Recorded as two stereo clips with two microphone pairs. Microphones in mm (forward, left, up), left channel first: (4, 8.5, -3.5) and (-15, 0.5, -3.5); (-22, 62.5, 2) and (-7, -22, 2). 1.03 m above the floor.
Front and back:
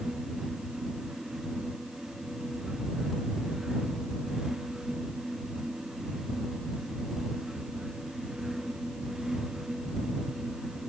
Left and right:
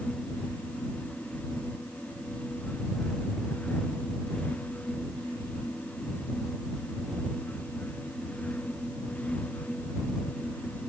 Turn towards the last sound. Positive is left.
No sound to turn to.